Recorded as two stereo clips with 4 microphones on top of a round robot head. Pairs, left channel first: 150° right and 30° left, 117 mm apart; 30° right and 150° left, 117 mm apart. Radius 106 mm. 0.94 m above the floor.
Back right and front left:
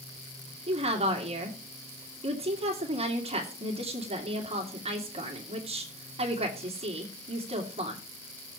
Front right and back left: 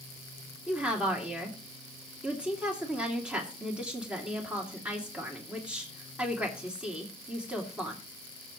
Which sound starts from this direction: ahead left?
A woman speaking, at 0.7 s.